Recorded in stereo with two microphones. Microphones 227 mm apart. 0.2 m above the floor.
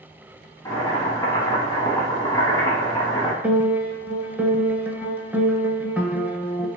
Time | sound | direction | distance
0.7 | boiling | 20° left (ahead or behind) | 1.3 m
3.4 | a piano | 5° right (ahead or behind) | 0.8 m